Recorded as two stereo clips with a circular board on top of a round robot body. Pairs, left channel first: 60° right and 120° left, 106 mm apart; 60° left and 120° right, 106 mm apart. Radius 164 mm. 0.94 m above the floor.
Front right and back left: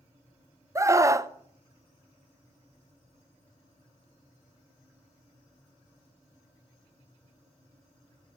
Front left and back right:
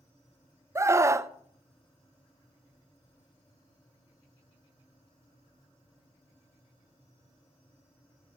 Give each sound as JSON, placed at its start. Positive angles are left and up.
{"t": 0.8, "sound": "a scream", "azimuth_deg": 180, "distance_m": 0.7}